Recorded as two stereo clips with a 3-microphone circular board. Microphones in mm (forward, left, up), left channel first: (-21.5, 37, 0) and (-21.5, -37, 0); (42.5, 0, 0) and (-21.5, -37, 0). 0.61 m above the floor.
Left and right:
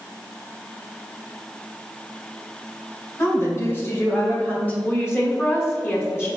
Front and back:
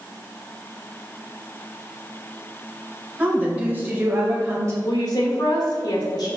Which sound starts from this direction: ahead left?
A woman speaking, at 4.8 s.